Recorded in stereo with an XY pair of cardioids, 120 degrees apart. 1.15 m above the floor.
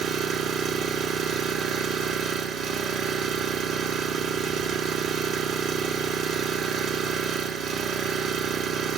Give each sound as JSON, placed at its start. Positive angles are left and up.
{"t": 0.0, "sound": "an engine running", "azimuth_deg": -65, "distance_m": 3.5}